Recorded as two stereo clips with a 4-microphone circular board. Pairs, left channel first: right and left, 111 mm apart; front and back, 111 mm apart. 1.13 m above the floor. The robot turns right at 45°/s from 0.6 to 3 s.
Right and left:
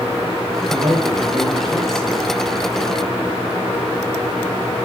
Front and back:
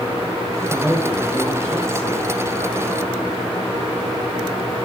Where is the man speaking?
95° left, 5 m; by 2.2 s 165° left, 5 m.